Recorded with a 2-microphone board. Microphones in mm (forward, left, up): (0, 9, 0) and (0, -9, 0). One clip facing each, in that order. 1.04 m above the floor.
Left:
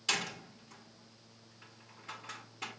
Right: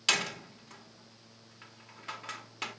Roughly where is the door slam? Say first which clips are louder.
Right 5 dB; right.